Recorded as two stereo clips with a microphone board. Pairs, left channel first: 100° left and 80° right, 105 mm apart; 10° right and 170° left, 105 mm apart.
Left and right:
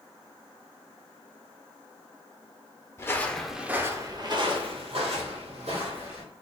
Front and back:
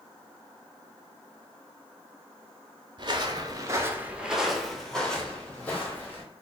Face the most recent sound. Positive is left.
turn(degrees=-85)